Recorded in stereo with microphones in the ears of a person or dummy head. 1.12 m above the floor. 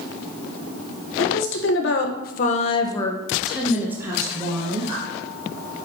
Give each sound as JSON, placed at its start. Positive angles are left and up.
{"t": 1.2, "sound": "a woman speaking", "side_deg": 65, "distance_m": 1.3}